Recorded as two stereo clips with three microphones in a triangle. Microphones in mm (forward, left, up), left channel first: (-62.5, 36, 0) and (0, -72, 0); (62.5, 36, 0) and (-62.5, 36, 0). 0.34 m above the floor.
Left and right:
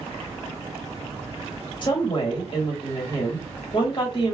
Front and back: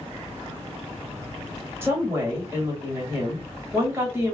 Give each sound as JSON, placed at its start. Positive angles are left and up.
{"t": 1.8, "sound": "a woman speaking", "azimuth_deg": 120, "distance_m": 1.4}